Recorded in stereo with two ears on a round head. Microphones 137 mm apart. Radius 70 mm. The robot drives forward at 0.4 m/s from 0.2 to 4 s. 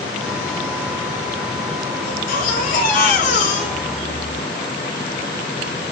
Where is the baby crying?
65° left (ahead or behind), 4 m; by 4.4 s 55° left (ahead or behind), 4 m.